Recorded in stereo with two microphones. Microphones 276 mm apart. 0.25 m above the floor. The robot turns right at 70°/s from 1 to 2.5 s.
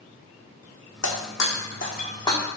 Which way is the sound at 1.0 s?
75° left (ahead or behind).